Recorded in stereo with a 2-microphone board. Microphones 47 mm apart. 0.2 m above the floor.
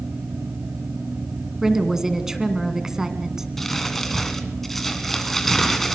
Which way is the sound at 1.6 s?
10° right (ahead or behind).